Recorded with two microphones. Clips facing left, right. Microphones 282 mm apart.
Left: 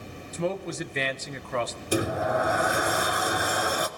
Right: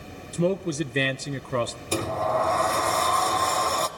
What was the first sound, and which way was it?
A man speaking, 35° right (ahead or behind).